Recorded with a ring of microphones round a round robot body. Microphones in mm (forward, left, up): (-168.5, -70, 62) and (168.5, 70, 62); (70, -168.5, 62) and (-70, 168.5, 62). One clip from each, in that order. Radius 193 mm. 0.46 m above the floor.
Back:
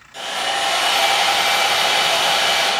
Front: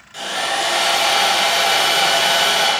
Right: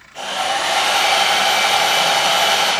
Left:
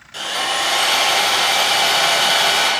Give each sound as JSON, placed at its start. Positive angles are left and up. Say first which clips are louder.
{"t": 0.1, "sound": "sawing", "louder": "front 1 dB, even", "azimuth_deg": 110, "distance_m": 3.0}